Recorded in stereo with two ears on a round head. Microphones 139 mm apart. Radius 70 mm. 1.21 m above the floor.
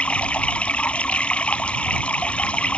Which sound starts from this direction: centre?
Running water, at 0.0 s.